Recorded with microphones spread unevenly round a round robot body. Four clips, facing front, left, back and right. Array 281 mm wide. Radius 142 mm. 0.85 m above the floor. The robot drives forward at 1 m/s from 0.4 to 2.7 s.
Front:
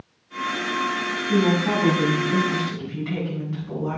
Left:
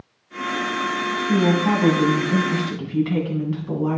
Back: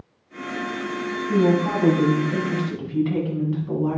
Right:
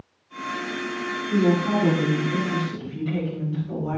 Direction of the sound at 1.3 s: 75° left.